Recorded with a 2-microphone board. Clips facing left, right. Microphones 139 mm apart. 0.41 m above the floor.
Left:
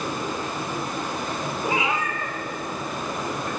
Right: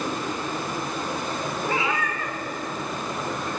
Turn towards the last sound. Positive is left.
turn(degrees=45)  # may be behind; listen again after turning